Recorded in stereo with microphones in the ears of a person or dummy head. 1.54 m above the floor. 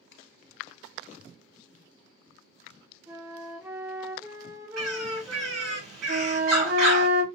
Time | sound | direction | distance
3.1 | a flute | 15° right (ahead or behind) | 0.9 m
4.8 | a bird | 65° right (ahead or behind) | 3 m
6.1 | a flute | 60° right (ahead or behind) | 2.5 m